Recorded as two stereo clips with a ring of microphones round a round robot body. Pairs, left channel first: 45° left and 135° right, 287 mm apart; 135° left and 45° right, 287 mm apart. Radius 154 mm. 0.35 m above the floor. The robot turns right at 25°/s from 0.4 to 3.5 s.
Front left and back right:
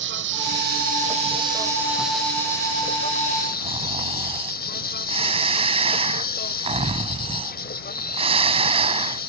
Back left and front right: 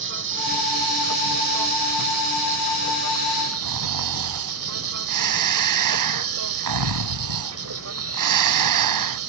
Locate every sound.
0.0 s an insect: 90° right; by 9.3 s 10° right
3.6 s snoring: 65° right